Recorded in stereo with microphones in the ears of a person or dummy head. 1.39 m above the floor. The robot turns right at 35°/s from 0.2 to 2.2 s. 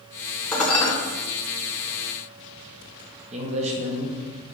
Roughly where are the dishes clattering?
Centre.